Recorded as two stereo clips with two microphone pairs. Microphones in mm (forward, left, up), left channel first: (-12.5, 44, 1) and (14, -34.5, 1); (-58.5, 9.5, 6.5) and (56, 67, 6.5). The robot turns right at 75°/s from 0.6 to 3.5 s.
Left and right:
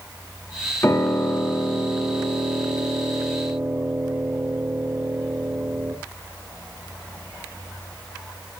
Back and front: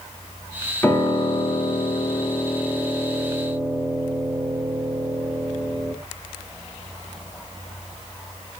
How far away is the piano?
About 0.8 m.